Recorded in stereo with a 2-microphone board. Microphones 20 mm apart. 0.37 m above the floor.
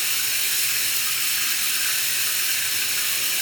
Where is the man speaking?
I don't hear a man speaking.